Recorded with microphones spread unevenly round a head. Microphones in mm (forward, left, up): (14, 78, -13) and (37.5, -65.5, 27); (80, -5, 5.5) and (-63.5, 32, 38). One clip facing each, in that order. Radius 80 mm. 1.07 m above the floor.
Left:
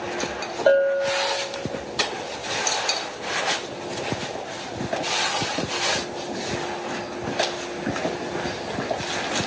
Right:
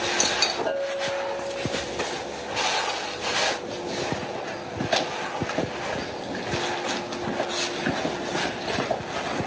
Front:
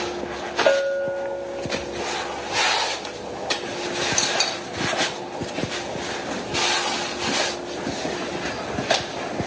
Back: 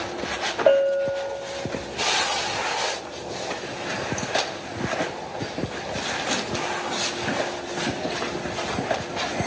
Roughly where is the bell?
Left.